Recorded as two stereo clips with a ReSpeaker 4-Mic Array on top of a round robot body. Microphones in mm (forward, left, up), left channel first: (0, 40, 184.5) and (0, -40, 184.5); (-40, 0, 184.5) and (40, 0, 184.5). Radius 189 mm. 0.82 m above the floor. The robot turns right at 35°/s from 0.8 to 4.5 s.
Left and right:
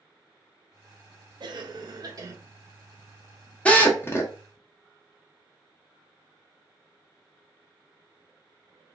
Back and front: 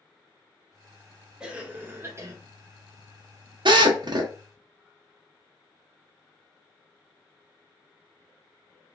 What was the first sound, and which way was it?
A cough, 80° right.